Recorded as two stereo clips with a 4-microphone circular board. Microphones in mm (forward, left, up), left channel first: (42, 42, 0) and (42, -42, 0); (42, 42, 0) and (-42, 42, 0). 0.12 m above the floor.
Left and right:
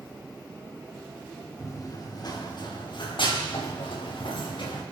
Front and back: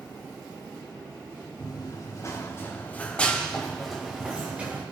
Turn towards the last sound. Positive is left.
turn(degrees=110)